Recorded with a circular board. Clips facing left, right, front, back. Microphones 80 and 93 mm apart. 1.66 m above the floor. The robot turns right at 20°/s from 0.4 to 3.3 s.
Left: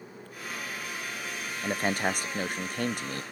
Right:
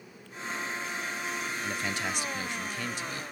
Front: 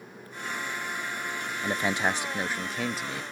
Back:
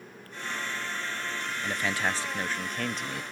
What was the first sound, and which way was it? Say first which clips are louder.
A man speaking: left 8 dB, front 3 dB; 60° left.